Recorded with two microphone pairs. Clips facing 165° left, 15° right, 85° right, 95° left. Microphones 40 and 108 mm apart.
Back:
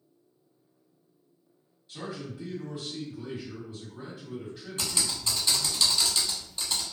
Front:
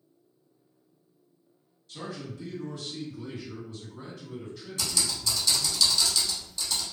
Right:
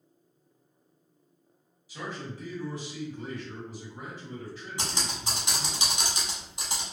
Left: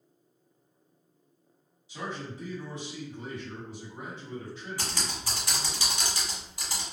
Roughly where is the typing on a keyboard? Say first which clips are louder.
Front 1 dB, right 4 dB; behind right.